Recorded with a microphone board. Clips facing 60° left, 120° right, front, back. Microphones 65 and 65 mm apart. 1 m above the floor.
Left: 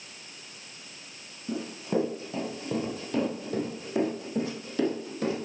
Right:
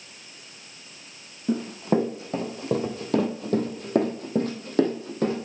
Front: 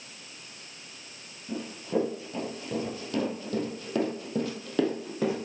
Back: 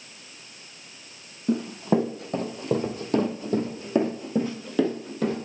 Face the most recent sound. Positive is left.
turn(degrees=-75)